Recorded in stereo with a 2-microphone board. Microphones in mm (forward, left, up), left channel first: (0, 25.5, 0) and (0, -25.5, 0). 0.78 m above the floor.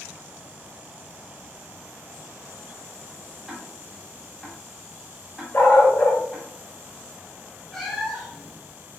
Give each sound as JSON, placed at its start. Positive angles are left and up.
{"t": 3.5, "sound": "ticking", "side_deg": -10, "distance_m": 0.8}
{"t": 5.5, "sound": "a dog barking", "side_deg": 50, "distance_m": 0.7}
{"t": 7.7, "sound": "a cat meowing", "side_deg": 5, "distance_m": 1.0}